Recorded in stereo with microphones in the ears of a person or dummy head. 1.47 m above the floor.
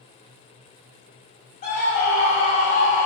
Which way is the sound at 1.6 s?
45° left (ahead or behind).